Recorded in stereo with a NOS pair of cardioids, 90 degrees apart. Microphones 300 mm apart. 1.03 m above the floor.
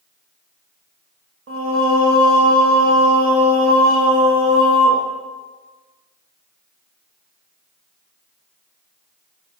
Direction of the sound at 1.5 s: 50° right.